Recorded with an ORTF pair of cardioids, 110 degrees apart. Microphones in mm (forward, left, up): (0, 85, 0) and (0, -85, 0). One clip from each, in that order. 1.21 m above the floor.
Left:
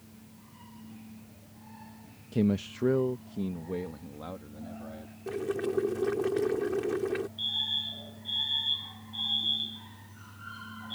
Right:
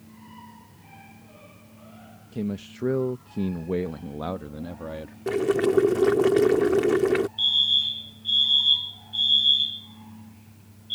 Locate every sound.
2.3 s a man speaking: 25° left; by 5.2 s 65° right
5.3 s boiling: 55° right
7.4 s a fire alarm: 55° right